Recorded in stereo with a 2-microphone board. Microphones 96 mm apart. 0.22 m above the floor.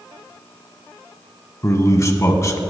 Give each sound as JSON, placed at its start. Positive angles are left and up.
{"t": 1.6, "sound": "a man speaking", "side_deg": 35, "distance_m": 1.5}